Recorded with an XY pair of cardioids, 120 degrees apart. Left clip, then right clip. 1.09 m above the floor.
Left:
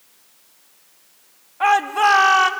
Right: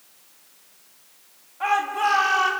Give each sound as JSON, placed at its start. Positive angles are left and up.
{"t": 1.6, "sound": "a shout", "azimuth_deg": 45, "distance_m": 1.8}